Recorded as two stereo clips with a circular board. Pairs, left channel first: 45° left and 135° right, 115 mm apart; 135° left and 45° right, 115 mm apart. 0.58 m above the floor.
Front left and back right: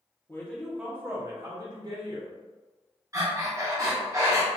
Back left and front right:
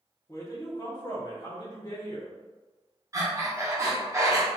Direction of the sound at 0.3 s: 95° left.